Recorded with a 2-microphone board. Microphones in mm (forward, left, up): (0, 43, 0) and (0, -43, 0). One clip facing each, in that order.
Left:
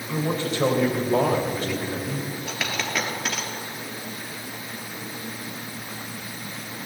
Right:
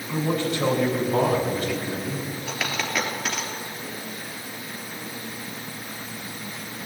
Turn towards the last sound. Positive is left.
turn(degrees=0)  # may be behind; listen again after turning